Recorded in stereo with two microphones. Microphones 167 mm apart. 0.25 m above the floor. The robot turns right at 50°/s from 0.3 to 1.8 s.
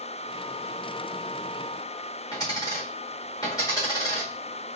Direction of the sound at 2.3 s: 20° left (ahead or behind).